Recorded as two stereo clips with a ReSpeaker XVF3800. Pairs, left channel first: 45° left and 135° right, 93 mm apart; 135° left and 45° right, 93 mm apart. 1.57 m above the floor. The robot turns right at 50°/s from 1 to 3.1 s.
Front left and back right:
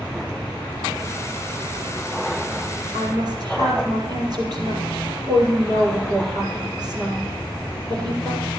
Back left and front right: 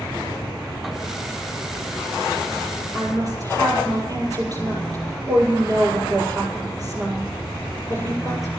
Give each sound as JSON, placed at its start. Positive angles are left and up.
{"t": 2.9, "sound": "a woman speaking", "azimuth_deg": -105, "distance_m": 7.0}